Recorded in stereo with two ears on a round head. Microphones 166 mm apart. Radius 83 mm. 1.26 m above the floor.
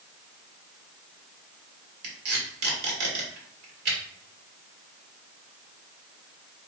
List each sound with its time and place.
2.0 s tape being pulled: 60° right (ahead or behind), 1.6 m